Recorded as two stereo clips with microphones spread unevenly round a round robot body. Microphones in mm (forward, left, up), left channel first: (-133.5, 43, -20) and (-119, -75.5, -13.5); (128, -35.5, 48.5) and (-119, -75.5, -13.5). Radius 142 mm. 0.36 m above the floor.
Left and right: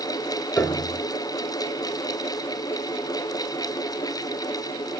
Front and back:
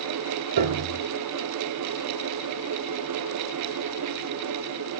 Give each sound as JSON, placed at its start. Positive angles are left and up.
{"t": 0.6, "sound": "a piano", "azimuth_deg": 175, "distance_m": 1.1}